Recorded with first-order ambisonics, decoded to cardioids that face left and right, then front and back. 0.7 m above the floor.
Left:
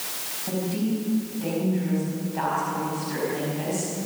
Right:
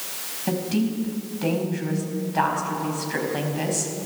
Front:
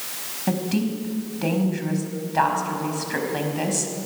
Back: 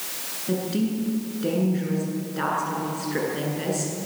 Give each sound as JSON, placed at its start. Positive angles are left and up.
{"t": 0.5, "sound": "a woman speaking", "azimuth_deg": -30, "distance_m": 5.0}